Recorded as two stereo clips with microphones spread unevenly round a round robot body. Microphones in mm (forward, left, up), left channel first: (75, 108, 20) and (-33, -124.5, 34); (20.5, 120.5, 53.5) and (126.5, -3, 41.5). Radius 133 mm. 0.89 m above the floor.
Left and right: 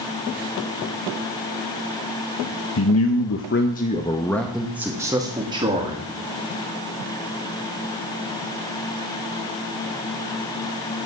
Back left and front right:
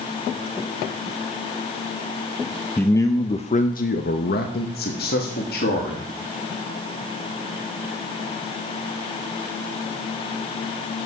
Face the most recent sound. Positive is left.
turn(degrees=175)